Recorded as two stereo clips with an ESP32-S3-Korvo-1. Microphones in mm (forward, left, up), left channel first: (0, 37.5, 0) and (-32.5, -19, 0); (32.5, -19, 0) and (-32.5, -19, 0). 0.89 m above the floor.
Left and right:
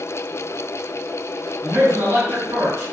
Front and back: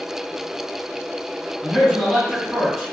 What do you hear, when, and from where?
1.6 s a man speaking: 85° right, 1.7 m